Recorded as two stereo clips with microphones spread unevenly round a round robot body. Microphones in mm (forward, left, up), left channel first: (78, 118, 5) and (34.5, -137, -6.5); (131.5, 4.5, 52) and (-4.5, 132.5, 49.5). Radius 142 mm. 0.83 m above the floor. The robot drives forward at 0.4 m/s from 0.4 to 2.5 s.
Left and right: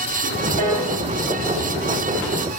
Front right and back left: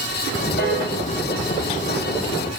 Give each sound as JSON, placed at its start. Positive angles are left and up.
{"t": 0.6, "sound": "a piano", "azimuth_deg": -100, "distance_m": 4.5}